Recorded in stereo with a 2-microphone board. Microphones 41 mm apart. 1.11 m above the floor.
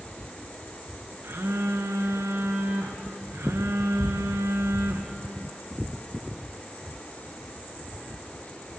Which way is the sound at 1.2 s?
80° right.